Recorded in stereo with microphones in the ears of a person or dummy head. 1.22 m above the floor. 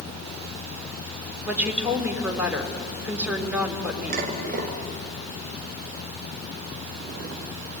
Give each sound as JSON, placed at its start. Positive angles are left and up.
{"t": 1.4, "sound": "a woman speaking", "side_deg": -5, "distance_m": 3.0}
{"t": 4.1, "sound": "dishes clattering", "side_deg": -45, "distance_m": 3.0}